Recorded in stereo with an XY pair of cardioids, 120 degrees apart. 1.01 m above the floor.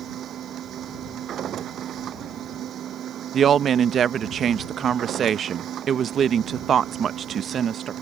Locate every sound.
0.0 s a machine running: 55° right
3.3 s a woman speaking: 50° right